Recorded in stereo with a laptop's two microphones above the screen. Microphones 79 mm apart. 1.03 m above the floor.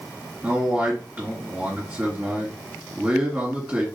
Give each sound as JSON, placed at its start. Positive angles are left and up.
{"t": 0.4, "sound": "a man speaking", "side_deg": -20, "distance_m": 2.0}